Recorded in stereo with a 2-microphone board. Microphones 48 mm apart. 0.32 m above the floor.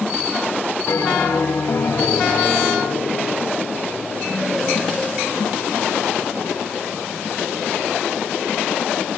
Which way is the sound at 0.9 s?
75° left (ahead or behind).